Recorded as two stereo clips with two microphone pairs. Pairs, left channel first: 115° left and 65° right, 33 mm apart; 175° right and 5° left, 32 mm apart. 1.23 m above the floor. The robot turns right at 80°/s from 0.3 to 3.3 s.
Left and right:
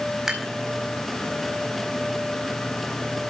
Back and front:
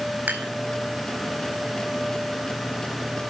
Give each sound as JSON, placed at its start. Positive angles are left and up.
{"t": 0.3, "sound": "dishes clattering", "azimuth_deg": 15, "distance_m": 4.5}